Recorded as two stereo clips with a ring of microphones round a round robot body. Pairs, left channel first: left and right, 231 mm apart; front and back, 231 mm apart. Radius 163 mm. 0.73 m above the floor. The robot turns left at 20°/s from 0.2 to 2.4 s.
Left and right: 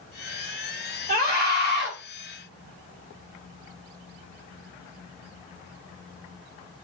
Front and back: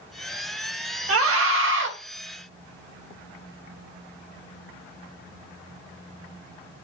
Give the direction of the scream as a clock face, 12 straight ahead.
7 o'clock.